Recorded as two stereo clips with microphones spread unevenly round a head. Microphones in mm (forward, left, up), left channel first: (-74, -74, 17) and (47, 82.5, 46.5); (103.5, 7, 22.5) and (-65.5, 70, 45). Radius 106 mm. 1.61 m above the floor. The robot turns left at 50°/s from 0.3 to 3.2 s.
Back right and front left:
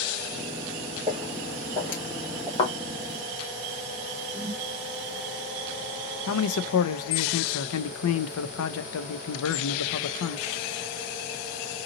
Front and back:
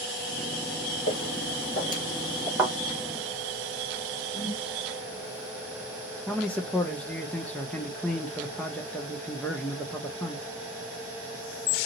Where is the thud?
165° right, 1.4 m; by 2.8 s 170° right, 1.4 m.